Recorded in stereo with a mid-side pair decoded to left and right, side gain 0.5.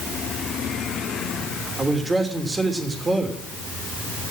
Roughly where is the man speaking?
Ahead right.